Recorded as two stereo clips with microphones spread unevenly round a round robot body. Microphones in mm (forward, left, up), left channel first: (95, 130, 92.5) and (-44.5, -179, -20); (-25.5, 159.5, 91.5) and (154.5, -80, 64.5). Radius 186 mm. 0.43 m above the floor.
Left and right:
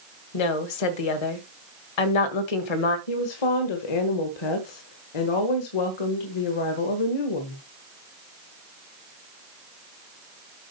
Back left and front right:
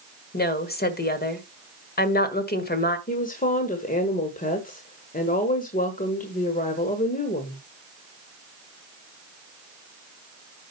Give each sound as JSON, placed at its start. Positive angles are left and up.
{"t": 0.3, "sound": "a woman speaking", "azimuth_deg": 65, "distance_m": 2.0}
{"t": 3.1, "sound": "a woman speaking", "azimuth_deg": 65, "distance_m": 1.6}